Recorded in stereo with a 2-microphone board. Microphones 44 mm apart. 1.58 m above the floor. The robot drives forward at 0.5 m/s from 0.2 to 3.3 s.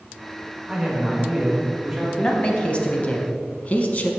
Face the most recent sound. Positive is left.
turn(degrees=40)  # may be behind; listen again after turning